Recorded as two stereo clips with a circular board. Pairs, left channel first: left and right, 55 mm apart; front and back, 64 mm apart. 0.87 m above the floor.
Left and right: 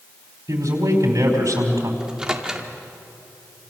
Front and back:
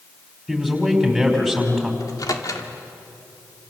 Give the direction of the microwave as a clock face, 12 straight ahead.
12 o'clock.